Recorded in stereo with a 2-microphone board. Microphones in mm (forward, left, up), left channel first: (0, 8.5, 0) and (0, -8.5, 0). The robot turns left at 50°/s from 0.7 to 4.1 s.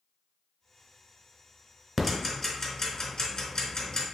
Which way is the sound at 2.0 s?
5° left (ahead or behind).